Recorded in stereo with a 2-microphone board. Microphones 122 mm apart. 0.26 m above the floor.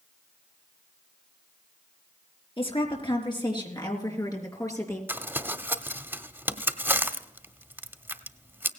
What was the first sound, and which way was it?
A woman speaking, 45° left (ahead or behind).